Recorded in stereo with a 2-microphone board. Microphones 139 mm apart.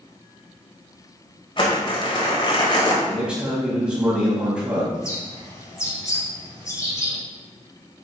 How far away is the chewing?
No chewing in this recording.